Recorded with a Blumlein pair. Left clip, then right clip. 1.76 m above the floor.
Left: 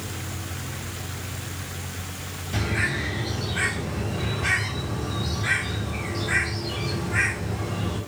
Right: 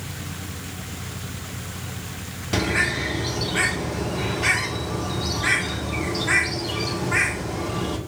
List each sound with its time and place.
0.0 s a fan: 65° right, 0.9 m
2.5 s a bird: 30° right, 1.9 m